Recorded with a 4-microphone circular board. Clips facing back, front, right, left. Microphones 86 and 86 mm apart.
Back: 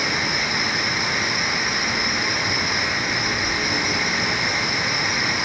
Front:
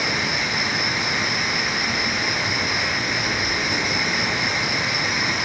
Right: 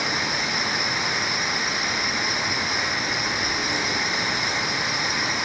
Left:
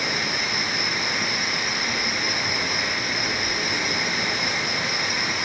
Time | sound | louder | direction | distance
0.0 | an insect | even, right 1 dB | 55° left | 2.5 m